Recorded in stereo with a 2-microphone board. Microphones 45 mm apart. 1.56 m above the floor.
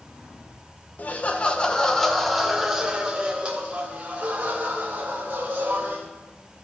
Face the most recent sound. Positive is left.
turn(degrees=-40)  # may be behind; listen again after turning